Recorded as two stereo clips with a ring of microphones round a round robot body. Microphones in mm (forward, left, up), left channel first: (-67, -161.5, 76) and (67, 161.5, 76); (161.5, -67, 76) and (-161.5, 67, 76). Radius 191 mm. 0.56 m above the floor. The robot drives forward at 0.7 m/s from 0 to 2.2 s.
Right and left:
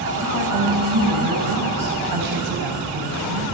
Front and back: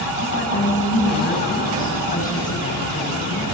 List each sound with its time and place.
0.2 s a woman speaking: 35° left, 6 m; by 3.4 s 45° left, 5 m